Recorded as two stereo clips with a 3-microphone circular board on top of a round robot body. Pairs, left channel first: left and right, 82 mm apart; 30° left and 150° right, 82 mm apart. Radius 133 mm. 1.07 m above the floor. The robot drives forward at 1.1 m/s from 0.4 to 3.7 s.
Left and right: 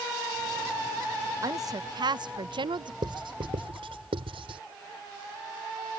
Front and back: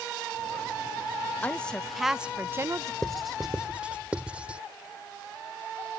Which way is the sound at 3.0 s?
55° right.